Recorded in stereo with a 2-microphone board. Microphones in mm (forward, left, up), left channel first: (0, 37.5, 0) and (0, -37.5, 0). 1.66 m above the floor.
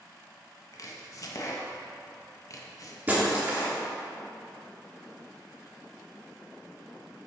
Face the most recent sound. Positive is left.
turn(degrees=-20)  # may be behind; listen again after turning